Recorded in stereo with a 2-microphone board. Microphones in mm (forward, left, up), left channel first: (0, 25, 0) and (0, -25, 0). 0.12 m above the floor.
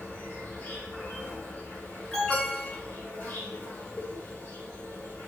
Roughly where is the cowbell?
Centre.